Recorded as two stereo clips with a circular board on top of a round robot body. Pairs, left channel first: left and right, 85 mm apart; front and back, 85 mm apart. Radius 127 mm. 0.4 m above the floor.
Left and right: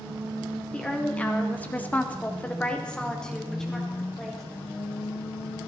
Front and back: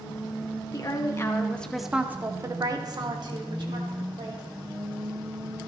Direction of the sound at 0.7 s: 20° left.